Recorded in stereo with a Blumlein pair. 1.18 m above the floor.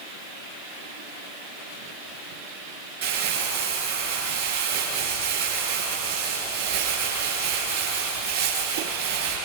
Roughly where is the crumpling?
Ahead right.